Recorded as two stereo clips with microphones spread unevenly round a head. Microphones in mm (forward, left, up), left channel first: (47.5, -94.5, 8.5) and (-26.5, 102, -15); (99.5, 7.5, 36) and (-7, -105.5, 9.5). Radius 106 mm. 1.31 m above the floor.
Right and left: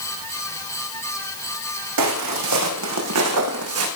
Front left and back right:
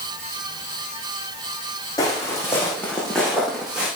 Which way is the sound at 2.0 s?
120° left.